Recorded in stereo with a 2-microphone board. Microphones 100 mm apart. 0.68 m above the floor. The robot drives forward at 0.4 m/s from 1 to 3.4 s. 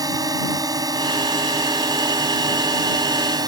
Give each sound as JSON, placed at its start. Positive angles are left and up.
{"t": 0.0, "sound": "a drone", "side_deg": -40}